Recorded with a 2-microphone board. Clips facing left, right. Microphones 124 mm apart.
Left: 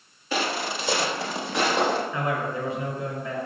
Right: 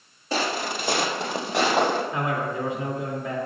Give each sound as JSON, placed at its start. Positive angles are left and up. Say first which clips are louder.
{"t": 0.3, "sound": "footsteps", "louder": "right 1 dB", "side_deg": -40, "distance_m": 1.9}
{"t": 2.1, "sound": "a man speaking", "louder": "right 1 dB", "side_deg": -85, "distance_m": 1.8}